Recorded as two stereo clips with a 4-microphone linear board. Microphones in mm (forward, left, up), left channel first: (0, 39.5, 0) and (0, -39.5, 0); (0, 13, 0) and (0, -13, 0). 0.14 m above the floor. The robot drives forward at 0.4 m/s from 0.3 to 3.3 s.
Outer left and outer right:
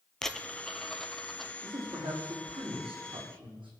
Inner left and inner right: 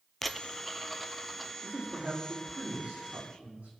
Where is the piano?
No piano in this recording.